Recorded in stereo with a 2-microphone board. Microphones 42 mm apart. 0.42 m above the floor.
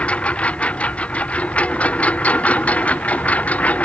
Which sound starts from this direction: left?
A lawn mower, at 0.0 s.